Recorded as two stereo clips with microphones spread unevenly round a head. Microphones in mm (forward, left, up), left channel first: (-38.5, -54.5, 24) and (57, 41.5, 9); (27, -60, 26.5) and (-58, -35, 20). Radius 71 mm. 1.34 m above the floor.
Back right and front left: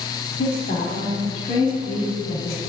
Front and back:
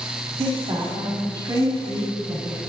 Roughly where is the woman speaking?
Behind right.